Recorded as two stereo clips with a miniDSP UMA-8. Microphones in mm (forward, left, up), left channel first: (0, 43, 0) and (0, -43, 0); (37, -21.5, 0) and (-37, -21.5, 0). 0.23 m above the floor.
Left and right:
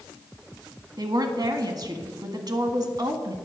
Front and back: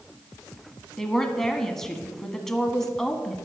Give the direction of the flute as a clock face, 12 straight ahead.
No flute in this recording.